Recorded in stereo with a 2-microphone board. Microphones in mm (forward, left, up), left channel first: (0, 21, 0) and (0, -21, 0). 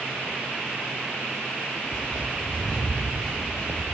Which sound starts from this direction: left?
Footsteps, at 1.9 s.